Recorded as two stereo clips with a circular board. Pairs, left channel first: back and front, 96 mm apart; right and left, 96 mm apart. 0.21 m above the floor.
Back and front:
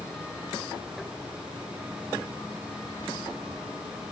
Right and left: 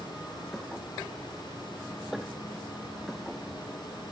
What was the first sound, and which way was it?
Only background noise.